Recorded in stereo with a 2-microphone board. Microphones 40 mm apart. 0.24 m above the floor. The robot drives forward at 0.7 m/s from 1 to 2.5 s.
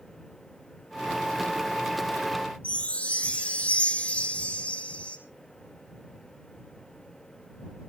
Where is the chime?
30° left (ahead or behind), 2 m.